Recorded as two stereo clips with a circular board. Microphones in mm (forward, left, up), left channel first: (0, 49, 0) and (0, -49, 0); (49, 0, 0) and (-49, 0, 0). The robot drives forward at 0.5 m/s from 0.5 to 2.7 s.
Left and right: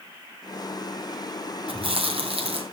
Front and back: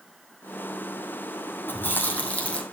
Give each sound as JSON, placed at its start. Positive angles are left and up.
{"t": 1.7, "sound": "chewing", "azimuth_deg": -70, "distance_m": 2.5}